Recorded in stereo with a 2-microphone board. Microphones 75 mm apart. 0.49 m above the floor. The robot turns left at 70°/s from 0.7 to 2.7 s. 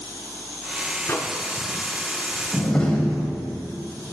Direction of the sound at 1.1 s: 35° left (ahead or behind).